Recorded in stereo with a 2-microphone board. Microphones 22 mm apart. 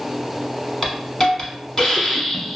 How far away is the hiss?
About 0.8 m.